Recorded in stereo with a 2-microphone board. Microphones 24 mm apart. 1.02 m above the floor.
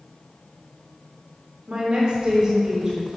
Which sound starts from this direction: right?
A woman speaking, at 1.7 s.